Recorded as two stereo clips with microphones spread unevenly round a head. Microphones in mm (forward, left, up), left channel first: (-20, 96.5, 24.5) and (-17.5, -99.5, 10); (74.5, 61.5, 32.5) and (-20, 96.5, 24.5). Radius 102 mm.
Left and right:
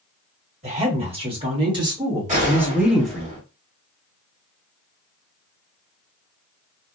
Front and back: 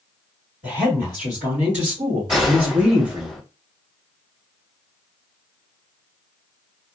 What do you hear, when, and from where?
0.6 s a woman speaking: 150° right, 1.9 m; by 3.3 s 170° left, 0.9 m
2.3 s a gunshot: 135° right, 2.5 m